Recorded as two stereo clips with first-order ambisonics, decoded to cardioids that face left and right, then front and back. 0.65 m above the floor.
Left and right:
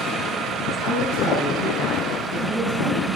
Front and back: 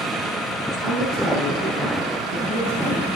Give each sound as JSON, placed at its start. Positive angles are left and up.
{"t": 0.8, "sound": "a woman speaking", "azimuth_deg": 130, "distance_m": 5.5}